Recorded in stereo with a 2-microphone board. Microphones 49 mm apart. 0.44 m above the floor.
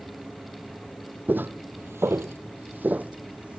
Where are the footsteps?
40° right (ahead or behind), 1.1 m; by 3.6 s 25° right (ahead or behind), 1.6 m.